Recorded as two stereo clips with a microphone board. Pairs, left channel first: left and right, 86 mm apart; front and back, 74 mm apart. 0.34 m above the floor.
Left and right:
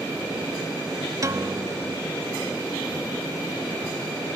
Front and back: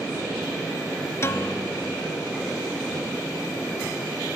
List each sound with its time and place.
1.2 s a piano: 45° right